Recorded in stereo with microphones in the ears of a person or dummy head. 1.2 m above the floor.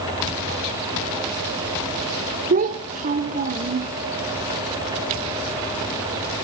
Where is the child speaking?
40° right (ahead or behind), 0.6 m.